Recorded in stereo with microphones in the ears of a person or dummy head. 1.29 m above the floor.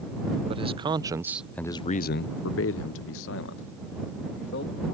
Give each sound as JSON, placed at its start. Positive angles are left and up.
{"t": 0.5, "sound": "a man speaking", "side_deg": -35}